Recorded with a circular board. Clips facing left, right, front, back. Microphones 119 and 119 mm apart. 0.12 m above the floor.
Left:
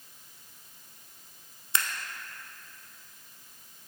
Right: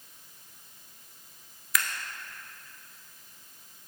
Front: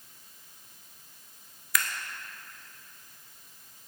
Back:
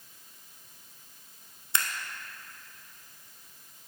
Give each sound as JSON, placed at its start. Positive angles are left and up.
{"t": 1.7, "sound": "scissors", "azimuth_deg": 135, "distance_m": 0.6}